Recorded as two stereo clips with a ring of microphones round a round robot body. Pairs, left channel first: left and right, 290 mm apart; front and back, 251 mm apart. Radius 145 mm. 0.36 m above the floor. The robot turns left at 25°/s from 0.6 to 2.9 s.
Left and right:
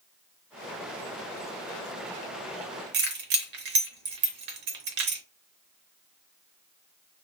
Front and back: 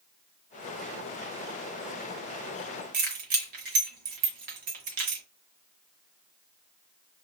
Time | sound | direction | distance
2.9 | keys jangling | 130° right | 0.7 m